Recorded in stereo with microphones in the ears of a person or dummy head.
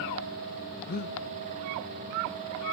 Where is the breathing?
50° left (ahead or behind), 0.8 m.